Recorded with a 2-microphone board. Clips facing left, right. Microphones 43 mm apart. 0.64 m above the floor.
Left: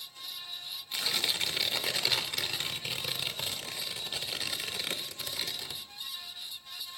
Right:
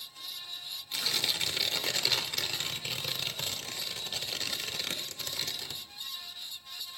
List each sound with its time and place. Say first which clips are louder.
0.9 s tearing paper: even; 10° left (ahead or behind), 0.6 m